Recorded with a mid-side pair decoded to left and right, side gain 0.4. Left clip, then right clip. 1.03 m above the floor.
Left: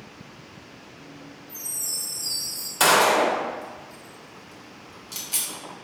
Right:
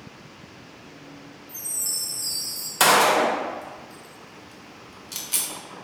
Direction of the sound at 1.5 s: 55° right.